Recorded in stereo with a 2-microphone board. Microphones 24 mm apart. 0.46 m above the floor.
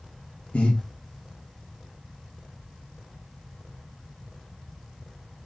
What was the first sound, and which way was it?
Breathing, 70° left (ahead or behind).